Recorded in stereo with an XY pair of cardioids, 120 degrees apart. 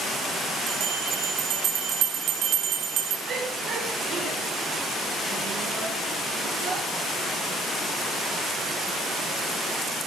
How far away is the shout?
About 7.5 m.